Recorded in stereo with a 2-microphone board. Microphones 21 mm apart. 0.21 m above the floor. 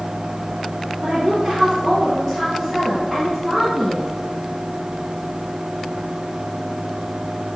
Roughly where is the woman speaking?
Right.